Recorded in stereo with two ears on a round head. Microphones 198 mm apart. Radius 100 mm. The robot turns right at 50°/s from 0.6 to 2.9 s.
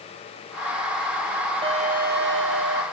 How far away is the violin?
About 1.9 m.